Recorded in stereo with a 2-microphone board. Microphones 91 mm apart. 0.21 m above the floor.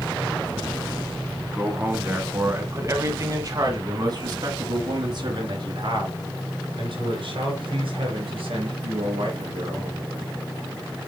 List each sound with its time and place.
1.5 s a man speaking: 15° right (ahead or behind), 1.9 m; by 10.1 s 75° right (ahead or behind), 5 m